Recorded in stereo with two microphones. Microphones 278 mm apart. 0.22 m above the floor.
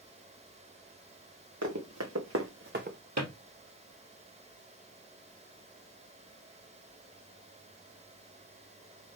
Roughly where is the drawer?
Right.